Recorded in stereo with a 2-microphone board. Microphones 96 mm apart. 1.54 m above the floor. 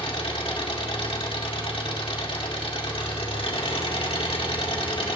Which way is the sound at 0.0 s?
75° left (ahead or behind).